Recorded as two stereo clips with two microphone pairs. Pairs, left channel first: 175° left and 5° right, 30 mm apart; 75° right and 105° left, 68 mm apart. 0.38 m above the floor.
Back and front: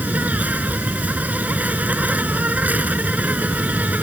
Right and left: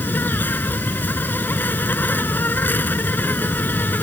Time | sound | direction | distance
0.0 | an insect | 15° right | ?